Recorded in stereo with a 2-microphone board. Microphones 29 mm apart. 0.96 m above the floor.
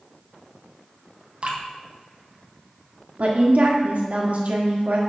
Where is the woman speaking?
60° right (ahead or behind), 1.4 m.